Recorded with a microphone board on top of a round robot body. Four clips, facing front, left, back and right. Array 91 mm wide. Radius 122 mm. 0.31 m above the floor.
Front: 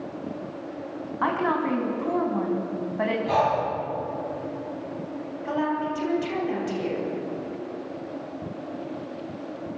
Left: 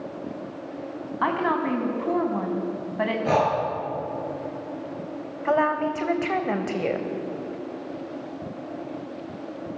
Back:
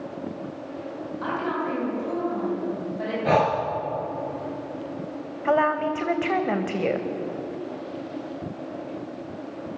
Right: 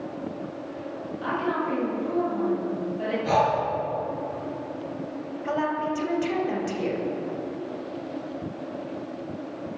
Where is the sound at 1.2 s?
60° left, 4.5 m.